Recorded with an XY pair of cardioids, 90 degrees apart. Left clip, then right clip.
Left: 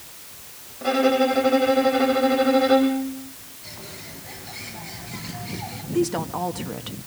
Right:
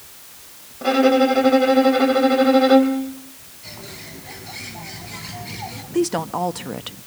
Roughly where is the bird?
Ahead right.